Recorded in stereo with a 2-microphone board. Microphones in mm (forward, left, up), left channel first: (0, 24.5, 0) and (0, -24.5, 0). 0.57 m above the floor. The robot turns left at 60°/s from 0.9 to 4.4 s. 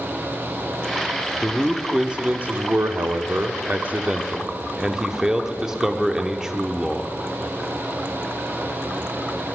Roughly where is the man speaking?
Ahead.